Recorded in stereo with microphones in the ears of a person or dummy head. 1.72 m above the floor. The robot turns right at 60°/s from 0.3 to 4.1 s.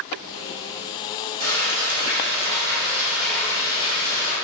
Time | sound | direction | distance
1.4 | frying | 110° right | 1.1 m